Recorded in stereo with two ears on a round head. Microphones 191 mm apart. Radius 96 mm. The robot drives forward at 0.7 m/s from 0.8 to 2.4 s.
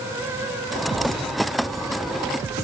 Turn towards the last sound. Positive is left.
No sound to turn to.